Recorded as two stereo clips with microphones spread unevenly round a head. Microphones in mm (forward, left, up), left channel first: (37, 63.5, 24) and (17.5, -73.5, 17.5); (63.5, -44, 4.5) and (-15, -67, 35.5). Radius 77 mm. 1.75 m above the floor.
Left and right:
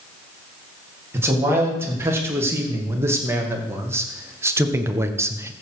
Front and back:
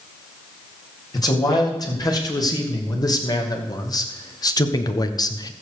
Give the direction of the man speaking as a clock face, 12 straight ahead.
1 o'clock.